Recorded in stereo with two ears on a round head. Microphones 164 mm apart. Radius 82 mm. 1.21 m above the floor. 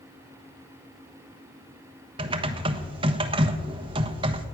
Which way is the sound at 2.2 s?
25° right (ahead or behind).